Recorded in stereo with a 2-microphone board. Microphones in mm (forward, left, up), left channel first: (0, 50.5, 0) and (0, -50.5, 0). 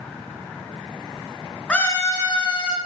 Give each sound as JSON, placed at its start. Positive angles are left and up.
{"t": 1.7, "sound": "a scream", "side_deg": 10, "distance_m": 0.8}